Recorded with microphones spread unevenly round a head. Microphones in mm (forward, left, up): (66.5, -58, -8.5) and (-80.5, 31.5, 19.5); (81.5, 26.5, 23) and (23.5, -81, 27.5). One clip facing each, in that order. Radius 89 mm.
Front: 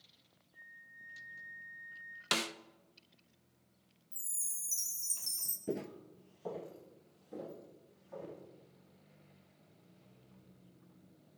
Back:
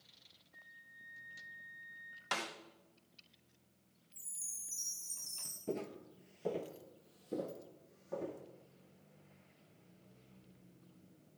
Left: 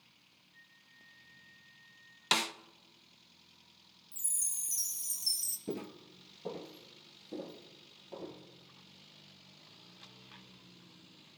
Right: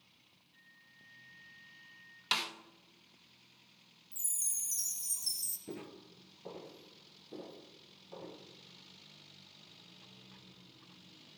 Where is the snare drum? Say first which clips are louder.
Front 4 dB, left 5 dB; 20° left, 0.6 m.